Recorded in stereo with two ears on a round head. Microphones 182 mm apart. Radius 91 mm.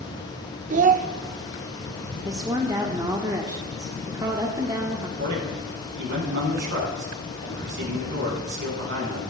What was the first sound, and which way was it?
A child speaking, 40° right (ahead or behind).